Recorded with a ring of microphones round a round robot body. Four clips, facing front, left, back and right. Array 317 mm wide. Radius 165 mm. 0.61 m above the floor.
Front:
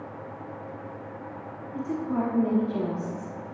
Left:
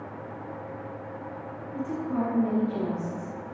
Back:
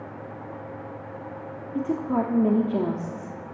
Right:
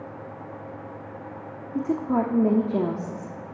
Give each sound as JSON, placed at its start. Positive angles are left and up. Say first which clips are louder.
{"t": 1.8, "sound": "a woman speaking", "louder": "right 5 dB, back 3 dB", "azimuth_deg": -125, "distance_m": 1.1}